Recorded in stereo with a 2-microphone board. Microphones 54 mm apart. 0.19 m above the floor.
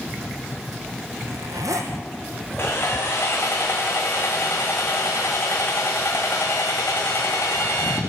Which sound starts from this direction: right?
A zipper, at 1.2 s.